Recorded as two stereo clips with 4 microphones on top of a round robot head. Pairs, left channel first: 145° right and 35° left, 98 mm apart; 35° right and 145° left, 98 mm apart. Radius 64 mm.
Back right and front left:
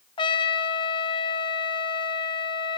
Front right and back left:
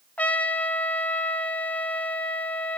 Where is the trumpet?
110° right, 1.5 m.